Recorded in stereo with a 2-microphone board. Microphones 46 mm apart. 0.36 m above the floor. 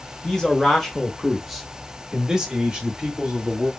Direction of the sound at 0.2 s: 10° left (ahead or behind).